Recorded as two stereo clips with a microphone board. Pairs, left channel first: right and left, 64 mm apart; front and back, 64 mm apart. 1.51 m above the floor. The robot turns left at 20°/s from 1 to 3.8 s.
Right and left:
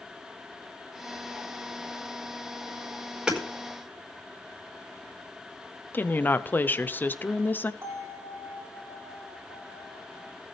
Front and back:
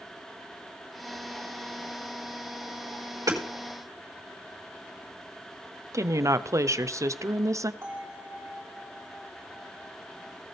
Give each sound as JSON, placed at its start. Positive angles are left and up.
{"t": 3.3, "sound": "hammering", "azimuth_deg": 165, "distance_m": 4.5}
{"t": 5.9, "sound": "a woman speaking", "azimuth_deg": -150, "distance_m": 0.8}
{"t": 7.8, "sound": "a bell", "azimuth_deg": 135, "distance_m": 4.5}